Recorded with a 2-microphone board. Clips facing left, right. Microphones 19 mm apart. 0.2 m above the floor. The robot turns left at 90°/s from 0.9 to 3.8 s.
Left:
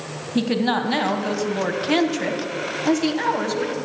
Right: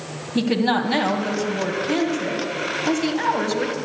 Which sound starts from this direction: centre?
A woman speaking, at 0.3 s.